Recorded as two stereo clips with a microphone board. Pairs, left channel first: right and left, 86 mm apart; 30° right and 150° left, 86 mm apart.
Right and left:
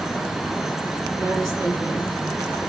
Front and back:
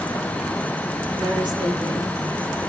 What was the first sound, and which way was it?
A woman speaking, 145° left.